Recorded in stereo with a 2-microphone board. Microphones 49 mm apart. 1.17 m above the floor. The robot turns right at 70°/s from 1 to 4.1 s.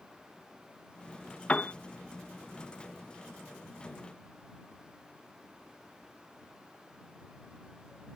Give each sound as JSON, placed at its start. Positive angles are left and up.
{"t": 1.5, "sound": "a piano", "side_deg": 20}